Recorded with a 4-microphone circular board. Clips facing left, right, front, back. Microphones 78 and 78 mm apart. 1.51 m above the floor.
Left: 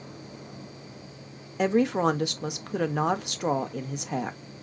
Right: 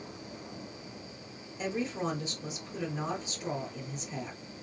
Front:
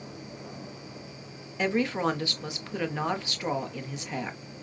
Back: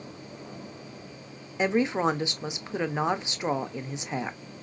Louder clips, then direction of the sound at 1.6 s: Left 11 dB, back 2 dB; 110° left.